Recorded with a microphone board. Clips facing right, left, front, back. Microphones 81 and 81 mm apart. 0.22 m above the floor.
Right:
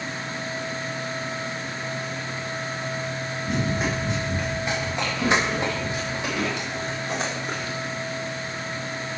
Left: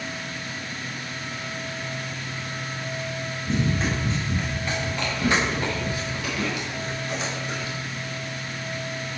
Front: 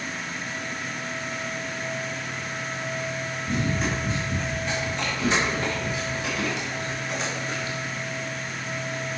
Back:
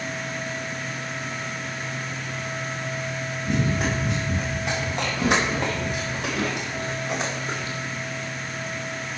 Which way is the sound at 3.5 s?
170° right.